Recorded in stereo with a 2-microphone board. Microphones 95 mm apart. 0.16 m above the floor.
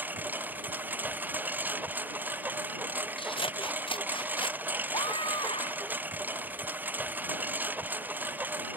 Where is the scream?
65° left (ahead or behind).